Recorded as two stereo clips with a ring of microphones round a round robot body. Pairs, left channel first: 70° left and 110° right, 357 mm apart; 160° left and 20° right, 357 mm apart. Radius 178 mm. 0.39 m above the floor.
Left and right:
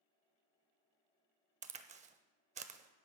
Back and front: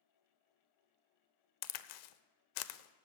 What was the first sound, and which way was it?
A crack, straight behind.